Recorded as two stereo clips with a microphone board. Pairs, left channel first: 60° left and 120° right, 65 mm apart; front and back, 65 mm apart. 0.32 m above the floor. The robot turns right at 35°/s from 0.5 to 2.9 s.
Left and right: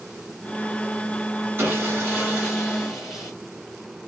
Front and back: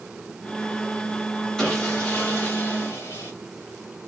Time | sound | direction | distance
1.6 | sawing | 80° right | 1.2 m